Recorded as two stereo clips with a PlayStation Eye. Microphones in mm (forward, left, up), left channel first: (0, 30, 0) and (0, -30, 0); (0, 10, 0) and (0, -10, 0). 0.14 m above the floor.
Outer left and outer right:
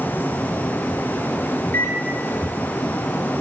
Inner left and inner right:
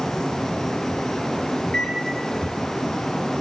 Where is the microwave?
40° left (ahead or behind), 2.5 m.